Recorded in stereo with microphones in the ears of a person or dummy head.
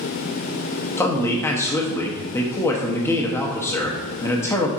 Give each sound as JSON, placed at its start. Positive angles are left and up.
{"t": 1.0, "sound": "a man speaking", "side_deg": 15, "distance_m": 0.8}